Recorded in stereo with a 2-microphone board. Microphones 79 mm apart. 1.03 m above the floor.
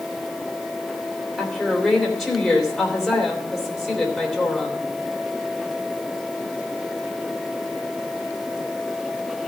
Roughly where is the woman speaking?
Centre.